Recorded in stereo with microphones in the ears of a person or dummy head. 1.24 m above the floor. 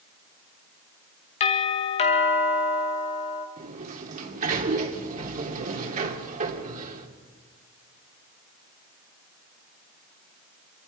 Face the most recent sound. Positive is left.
turn(degrees=-45)  # may be behind; listen again after turning